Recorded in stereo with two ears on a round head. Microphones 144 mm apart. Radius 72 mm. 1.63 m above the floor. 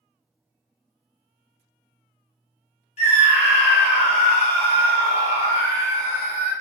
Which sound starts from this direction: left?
A scream, at 3.0 s.